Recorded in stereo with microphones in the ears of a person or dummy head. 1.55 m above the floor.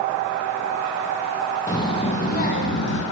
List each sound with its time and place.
1.7 s a child speaking: 20° left (ahead or behind), 0.9 m; by 3.0 s 65° left (ahead or behind), 1.1 m